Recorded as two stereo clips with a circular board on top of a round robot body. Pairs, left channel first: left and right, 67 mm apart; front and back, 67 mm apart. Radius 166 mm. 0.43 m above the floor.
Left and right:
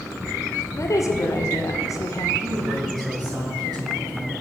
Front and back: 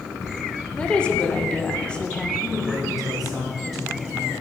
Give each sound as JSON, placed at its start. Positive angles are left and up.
{"t": 0.8, "sound": "a woman speaking", "azimuth_deg": 70, "distance_m": 1.9}
{"t": 2.4, "sound": "a man speaking", "azimuth_deg": -95, "distance_m": 4.0}